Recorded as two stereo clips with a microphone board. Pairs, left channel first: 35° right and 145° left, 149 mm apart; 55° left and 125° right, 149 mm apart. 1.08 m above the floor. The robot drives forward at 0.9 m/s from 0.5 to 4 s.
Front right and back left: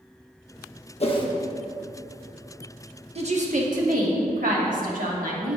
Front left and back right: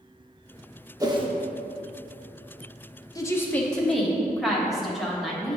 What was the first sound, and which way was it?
A whoosh, 65° right.